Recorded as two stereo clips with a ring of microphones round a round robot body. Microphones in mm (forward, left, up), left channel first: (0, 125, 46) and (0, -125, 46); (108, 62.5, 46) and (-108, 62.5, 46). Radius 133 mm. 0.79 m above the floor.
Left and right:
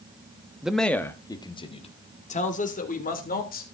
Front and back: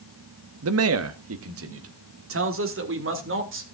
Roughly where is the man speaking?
Behind.